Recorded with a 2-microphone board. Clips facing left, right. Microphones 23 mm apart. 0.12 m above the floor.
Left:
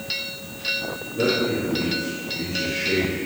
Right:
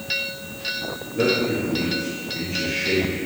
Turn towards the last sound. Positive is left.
turn(degrees=-40)  # may be behind; listen again after turning